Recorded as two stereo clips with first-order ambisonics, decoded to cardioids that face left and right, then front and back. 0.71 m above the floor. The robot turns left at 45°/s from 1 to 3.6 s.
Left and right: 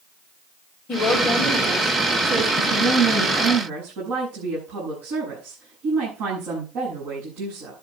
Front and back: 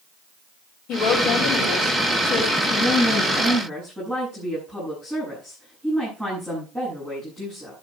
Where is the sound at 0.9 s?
30° left, 4.5 m; by 2.5 s 35° right, 4.5 m.